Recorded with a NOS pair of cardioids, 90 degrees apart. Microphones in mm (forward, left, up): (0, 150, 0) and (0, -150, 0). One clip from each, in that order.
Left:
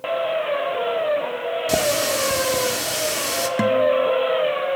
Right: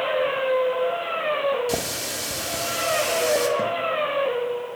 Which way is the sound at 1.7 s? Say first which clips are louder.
Left 7 dB; 25° left.